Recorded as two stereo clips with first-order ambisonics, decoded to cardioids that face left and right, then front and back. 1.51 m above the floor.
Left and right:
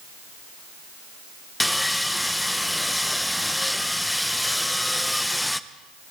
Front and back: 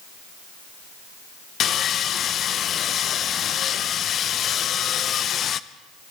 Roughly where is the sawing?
Ahead.